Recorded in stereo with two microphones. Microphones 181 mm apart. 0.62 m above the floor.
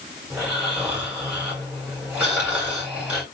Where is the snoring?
5° right (ahead or behind), 3 m.